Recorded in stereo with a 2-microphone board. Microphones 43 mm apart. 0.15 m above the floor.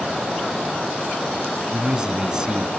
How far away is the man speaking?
About 1.1 m.